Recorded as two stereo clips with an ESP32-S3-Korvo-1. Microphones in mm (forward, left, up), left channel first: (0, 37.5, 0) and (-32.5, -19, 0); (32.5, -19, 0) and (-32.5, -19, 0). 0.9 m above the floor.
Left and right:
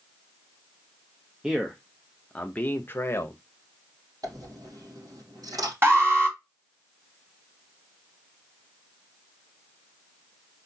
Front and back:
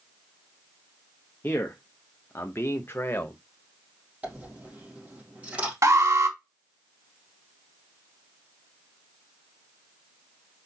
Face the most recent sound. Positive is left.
turn(degrees=-165)